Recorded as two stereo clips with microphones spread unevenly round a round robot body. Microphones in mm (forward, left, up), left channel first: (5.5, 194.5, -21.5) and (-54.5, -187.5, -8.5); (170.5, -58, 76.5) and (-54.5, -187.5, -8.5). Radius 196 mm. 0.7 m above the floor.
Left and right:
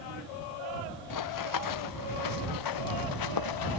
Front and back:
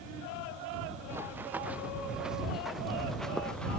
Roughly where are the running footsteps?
Behind left.